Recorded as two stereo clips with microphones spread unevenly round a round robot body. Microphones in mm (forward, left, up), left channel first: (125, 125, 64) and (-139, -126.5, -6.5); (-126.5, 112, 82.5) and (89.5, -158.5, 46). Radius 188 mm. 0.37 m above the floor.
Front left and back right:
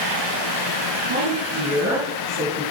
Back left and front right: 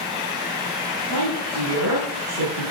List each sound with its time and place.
1.1 s a woman speaking: 85° right, 3.5 m; by 2.7 s 70° right, 4 m